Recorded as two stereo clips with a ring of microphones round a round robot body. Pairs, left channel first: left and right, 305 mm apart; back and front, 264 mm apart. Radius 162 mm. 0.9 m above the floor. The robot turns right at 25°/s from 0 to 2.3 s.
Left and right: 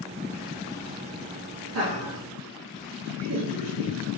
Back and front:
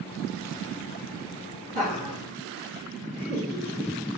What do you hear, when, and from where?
1.7 s laughter: 65° right, 2 m; by 3.9 s 50° right, 2 m